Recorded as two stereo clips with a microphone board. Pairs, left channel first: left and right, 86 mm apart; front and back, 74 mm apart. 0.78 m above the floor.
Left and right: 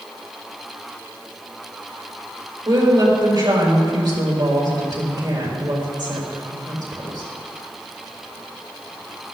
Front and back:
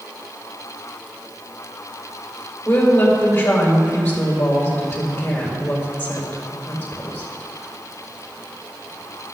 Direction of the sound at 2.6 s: 65° right.